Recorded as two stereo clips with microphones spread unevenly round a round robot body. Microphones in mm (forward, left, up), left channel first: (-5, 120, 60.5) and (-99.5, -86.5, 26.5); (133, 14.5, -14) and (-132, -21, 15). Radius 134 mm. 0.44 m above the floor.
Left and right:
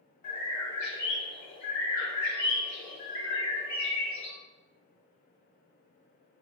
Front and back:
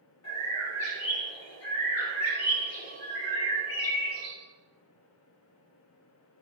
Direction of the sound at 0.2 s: 40° left.